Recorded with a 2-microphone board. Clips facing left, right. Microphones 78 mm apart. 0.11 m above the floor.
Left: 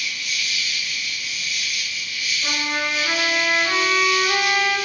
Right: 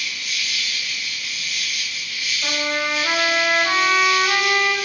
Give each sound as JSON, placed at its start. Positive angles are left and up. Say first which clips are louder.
{"t": 0.0, "sound": "an insect", "louder": "even", "side_deg": -50, "distance_m": 3.0}
{"t": 2.4, "sound": "a trumpet", "louder": "right 2 dB", "side_deg": -35, "distance_m": 3.0}